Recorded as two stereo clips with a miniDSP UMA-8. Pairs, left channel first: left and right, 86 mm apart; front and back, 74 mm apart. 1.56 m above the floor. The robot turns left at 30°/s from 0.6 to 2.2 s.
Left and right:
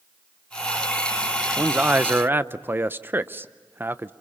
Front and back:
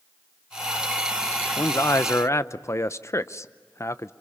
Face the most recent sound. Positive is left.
turn(degrees=-35)